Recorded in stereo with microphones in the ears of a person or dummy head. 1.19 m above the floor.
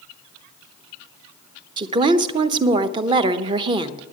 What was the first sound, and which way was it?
A woman speaking, 30° right (ahead or behind).